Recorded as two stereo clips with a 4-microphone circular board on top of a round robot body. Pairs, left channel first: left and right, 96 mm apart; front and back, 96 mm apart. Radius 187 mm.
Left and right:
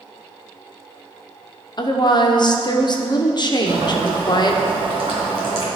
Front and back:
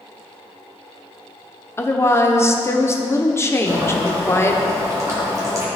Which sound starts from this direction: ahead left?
A woman speaking, at 1.8 s.